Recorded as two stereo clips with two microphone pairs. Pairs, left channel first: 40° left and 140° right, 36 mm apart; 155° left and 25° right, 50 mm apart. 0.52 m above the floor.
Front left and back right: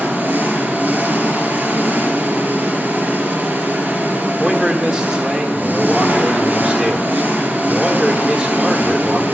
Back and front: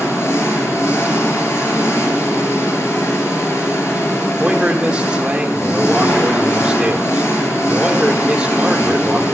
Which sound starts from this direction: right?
A man speaking, at 4.4 s.